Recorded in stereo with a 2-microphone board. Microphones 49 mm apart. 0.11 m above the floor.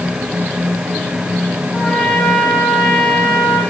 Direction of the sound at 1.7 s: 10° left (ahead or behind).